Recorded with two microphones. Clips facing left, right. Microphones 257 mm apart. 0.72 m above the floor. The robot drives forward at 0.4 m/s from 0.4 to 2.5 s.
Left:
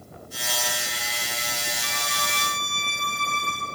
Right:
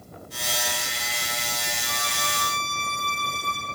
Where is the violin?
75° left (ahead or behind), 8.5 m; by 3.7 s 80° left, 8.5 m.